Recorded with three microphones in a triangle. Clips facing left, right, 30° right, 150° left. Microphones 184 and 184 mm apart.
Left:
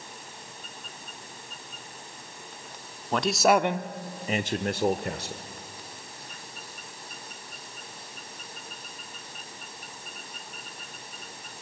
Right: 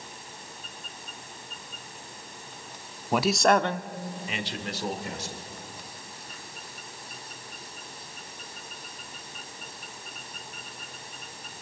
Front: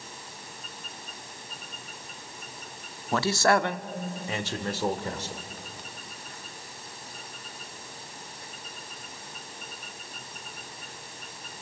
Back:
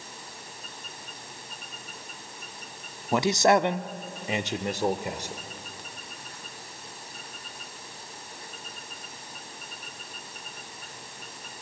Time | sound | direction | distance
3.1 | a man speaking | 155° right | 0.7 m